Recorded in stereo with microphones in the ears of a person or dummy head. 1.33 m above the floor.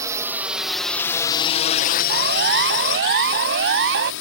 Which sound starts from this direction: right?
A siren, at 2.1 s.